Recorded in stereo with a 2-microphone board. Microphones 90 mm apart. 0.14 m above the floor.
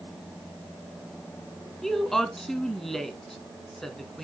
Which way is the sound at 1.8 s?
Centre (ahead or behind).